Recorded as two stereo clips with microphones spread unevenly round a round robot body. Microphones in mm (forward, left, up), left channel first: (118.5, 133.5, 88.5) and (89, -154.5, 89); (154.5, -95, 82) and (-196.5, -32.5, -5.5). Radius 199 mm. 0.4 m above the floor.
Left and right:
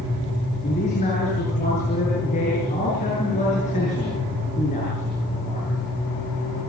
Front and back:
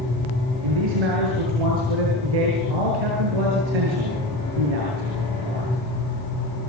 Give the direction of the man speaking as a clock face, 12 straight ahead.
7 o'clock.